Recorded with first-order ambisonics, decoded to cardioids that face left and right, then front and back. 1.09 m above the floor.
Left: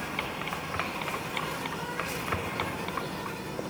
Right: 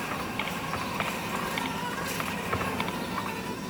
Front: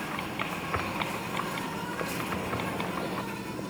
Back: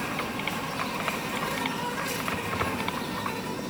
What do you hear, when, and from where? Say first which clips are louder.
0.0 s an insect: right 1 dB, back 3 dB; 140° right, 3.5 m